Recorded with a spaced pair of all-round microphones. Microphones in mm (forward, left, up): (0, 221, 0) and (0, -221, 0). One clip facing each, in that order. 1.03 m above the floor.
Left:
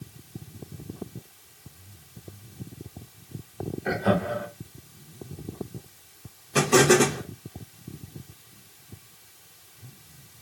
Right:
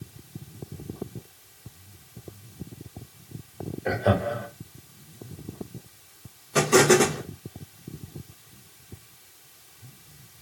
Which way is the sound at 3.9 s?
25° left (ahead or behind).